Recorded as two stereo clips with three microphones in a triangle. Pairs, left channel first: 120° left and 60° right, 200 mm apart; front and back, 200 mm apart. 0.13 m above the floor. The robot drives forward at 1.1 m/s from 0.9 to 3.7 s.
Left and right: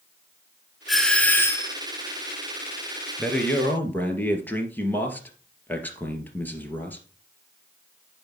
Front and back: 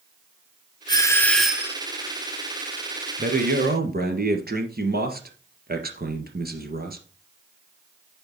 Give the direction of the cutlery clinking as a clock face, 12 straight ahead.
I don't hear cutlery clinking.